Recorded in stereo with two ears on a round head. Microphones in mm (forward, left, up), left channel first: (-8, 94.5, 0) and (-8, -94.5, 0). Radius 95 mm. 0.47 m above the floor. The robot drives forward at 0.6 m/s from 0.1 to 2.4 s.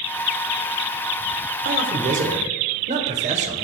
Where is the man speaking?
40° right (ahead or behind), 1.7 m; by 3.6 s 35° right (ahead or behind), 1.9 m.